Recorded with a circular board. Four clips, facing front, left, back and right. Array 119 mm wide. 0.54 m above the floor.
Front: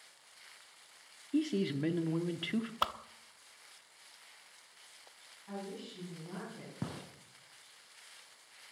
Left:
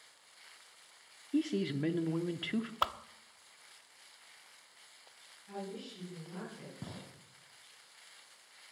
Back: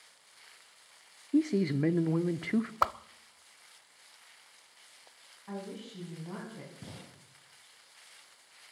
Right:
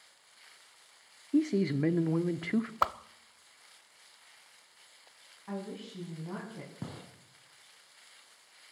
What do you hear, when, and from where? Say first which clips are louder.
1.3 s a man speaking: right 5 dB, back 5 dB; 135° right, 0.8 m
2.8 s a whoosh: right 4 dB, back 6 dB; 140° right, 0.5 m
5.5 s a woman speaking: right 3 dB, back 2 dB; 115° right, 5 m
6.8 s a gunshot: right 4 dB, front 6 dB; 25° right, 3 m